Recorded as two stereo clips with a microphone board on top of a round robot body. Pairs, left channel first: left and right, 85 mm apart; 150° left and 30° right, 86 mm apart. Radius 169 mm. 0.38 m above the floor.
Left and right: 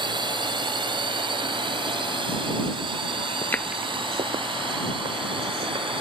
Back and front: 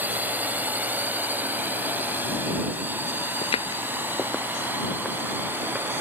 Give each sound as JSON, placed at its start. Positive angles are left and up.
{"t": 0.0, "sound": "a drone", "azimuth_deg": -95}
{"t": 3.4, "sound": "footsteps", "azimuth_deg": 145}